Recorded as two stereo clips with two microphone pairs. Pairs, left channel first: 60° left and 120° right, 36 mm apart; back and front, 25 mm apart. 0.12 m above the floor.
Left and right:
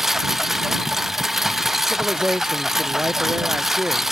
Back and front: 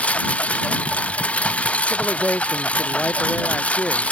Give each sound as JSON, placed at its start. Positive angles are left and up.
{"t": 0.0, "sound": "a lawn mower", "azimuth_deg": 160}
{"t": 1.9, "sound": "a man speaking", "azimuth_deg": -160}